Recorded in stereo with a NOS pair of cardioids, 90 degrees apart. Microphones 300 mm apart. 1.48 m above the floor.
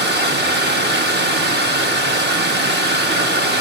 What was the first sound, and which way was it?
Running water, 35° right.